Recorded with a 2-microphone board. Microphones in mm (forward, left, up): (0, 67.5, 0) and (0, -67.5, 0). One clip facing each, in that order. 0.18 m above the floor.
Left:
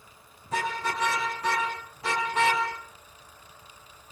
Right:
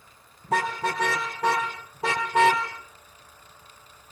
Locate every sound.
0.4 s a car horn: 80° right, 6.5 m